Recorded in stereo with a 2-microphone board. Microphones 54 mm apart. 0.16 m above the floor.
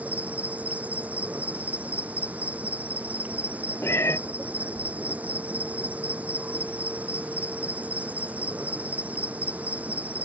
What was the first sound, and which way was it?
An insect, 30° right (ahead or behind).